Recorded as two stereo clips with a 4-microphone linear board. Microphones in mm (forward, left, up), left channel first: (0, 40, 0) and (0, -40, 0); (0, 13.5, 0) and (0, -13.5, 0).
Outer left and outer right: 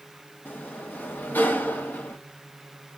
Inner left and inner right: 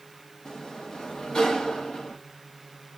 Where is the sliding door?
25° left (ahead or behind), 0.9 m.